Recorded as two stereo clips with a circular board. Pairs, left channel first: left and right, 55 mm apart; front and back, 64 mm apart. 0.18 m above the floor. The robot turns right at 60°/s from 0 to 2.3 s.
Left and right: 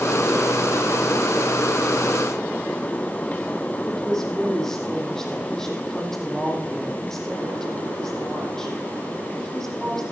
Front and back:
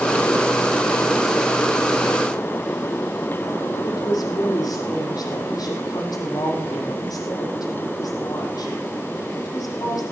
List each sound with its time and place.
3.8 s a woman speaking: 10° left, 5.5 m